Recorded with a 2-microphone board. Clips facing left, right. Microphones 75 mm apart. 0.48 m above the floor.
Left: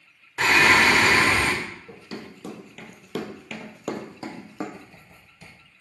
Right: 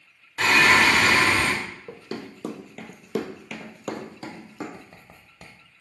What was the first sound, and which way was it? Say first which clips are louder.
Singing: even; 25° left (ahead or behind).